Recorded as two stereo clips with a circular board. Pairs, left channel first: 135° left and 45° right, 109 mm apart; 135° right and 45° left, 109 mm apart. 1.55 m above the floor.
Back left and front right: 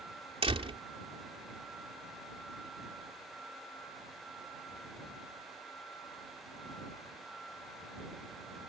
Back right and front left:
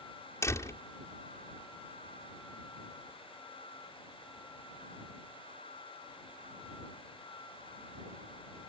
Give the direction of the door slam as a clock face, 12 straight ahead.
2 o'clock.